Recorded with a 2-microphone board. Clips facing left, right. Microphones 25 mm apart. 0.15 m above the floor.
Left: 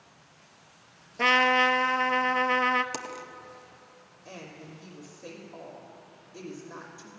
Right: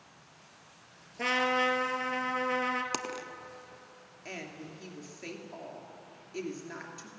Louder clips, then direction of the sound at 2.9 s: Right 1 dB; 25° right (ahead or behind).